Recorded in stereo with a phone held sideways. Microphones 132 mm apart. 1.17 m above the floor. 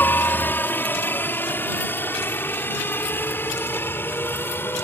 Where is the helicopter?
15° left (ahead or behind).